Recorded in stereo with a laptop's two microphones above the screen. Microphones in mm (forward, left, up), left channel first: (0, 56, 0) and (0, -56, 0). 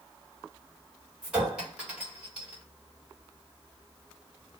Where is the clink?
10° right (ahead or behind), 1.6 m.